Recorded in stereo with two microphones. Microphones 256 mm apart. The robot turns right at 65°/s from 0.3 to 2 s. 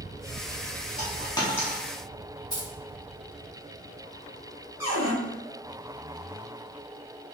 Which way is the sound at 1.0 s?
30° left (ahead or behind).